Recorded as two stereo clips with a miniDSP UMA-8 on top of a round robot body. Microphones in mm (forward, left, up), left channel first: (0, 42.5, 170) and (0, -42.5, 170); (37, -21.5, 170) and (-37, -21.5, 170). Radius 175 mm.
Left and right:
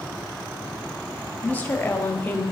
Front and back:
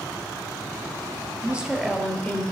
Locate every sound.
1.4 s a woman speaking: 135° left, 1.2 m; by 2.4 s 35° left, 1.3 m